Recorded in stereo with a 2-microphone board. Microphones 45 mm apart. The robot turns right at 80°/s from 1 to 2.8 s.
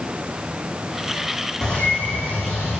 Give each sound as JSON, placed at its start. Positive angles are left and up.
{"t": 1.6, "sound": "a bird", "azimuth_deg": 15, "distance_m": 6.5}